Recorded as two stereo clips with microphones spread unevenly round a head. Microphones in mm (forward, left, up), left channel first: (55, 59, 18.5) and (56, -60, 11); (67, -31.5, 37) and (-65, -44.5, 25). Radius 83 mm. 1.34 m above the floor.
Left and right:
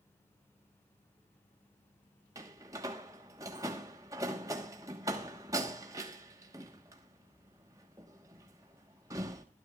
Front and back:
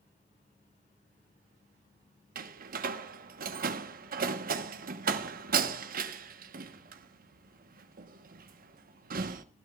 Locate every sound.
2.4 s a door slam: 160° right, 1.1 m